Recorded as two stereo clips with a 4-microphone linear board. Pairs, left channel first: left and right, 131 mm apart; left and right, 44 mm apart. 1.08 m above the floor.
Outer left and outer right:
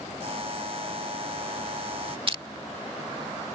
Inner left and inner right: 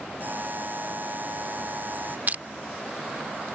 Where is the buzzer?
50° right (ahead or behind).